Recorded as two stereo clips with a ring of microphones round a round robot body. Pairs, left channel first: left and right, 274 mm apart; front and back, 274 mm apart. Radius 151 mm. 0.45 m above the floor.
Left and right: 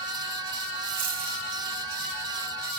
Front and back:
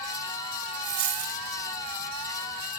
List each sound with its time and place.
0.8 s a dropped coin: 155° right, 1.2 m